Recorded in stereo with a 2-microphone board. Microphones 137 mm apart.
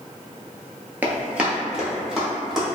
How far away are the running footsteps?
About 0.6 m.